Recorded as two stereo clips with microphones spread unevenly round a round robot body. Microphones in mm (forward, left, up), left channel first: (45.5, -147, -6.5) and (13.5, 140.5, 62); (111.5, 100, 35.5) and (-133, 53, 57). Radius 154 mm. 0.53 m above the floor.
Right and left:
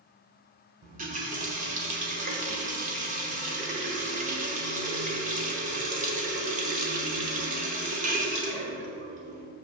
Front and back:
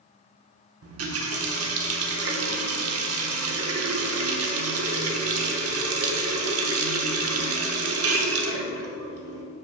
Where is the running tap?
165° left, 0.9 m.